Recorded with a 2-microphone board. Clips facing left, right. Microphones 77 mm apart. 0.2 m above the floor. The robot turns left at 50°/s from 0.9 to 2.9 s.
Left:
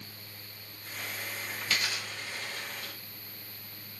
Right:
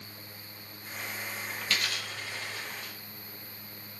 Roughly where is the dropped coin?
Centre.